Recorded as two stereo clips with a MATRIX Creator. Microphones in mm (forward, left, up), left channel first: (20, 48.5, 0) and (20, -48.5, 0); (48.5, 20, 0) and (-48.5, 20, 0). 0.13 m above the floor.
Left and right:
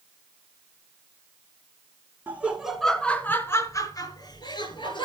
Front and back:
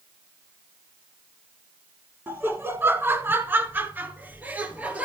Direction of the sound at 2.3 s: 135° right.